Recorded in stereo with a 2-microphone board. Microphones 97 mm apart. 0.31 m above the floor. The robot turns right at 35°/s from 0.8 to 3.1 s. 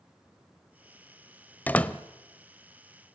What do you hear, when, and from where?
1.7 s a door slam: 15° left (ahead or behind), 0.9 m; by 2.0 s 10° left (ahead or behind), 0.9 m